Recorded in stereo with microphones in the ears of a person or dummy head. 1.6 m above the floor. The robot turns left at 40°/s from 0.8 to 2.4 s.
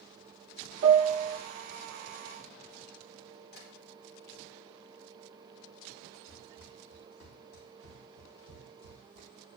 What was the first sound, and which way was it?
A piano, 80° right.